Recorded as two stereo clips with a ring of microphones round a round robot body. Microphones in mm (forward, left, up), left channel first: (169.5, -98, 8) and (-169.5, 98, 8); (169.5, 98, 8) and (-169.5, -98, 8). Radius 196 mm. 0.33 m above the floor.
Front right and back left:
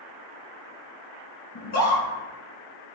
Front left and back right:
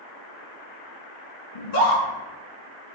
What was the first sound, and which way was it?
A scream, 30° left.